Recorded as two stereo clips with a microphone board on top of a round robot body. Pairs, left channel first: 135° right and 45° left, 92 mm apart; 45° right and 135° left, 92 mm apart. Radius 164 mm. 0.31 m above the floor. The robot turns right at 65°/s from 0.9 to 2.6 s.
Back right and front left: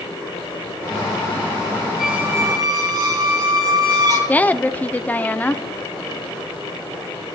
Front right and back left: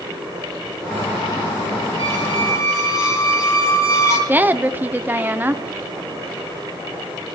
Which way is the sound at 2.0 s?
35° right.